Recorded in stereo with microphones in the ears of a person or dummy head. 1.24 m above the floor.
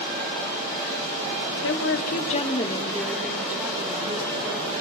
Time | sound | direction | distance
1.6 | a woman speaking | 70° left (ahead or behind) | 1.8 m